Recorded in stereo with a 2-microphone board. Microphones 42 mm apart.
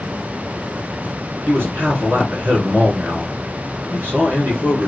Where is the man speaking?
50° right (ahead or behind), 2 m.